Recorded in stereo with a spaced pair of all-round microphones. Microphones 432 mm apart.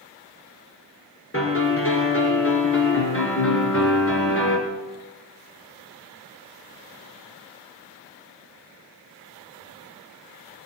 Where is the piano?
30° left (ahead or behind), 2.5 m.